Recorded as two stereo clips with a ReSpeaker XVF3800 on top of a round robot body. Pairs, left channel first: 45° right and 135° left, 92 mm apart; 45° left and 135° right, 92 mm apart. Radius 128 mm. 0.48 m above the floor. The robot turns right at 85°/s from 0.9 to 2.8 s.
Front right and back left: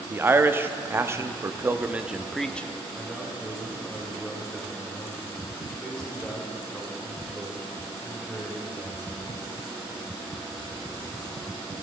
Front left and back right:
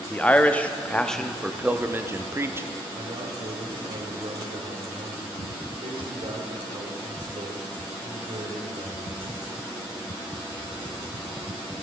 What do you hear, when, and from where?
0.1 s a man speaking: 100° left, 0.8 m; by 2.7 s 105° right, 0.8 m
3.0 s a man speaking: 130° right, 2.5 m